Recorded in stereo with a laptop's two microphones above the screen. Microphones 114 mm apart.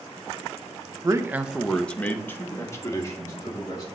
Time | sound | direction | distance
1.0 | a man speaking | 30° right (ahead or behind) | 0.6 m